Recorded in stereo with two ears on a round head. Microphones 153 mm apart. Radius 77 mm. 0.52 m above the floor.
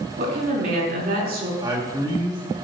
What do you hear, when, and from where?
0.2 s a woman speaking: 60° right (ahead or behind), 6 m
1.6 s a man speaking: 25° right (ahead or behind), 3 m